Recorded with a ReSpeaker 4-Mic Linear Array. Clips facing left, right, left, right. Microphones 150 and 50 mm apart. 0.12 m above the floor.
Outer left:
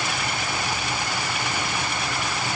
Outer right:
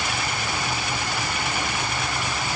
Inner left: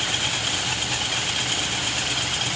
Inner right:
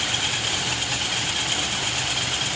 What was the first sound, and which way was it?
Only background noise.